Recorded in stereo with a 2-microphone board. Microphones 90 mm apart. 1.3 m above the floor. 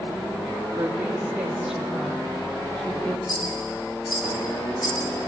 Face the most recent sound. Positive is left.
turn(degrees=55)  # may be behind; listen again after turning